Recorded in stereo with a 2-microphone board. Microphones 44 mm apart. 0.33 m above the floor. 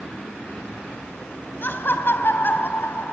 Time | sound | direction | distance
1.6 | laughter | 55° left (ahead or behind) | 2.5 m